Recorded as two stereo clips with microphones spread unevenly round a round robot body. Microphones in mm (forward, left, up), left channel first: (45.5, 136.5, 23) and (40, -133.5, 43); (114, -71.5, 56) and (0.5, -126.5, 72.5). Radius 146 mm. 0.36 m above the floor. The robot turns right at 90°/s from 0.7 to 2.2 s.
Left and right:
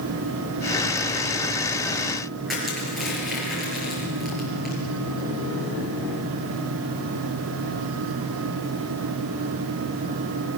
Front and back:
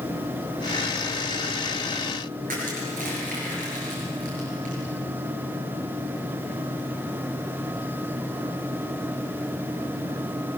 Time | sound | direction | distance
2.5 | crushing | straight behind | 6 m